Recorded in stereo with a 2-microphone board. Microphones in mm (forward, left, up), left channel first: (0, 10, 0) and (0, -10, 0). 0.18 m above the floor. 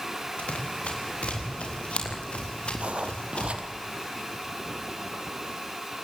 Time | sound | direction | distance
0.4 | running footsteps | 90° left | 5.5 m
2.8 | writing | 75° right (ahead or behind) | 1.9 m